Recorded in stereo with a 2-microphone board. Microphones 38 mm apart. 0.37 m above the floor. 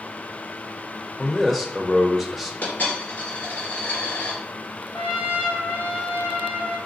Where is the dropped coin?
55° left (ahead or behind), 2.5 m.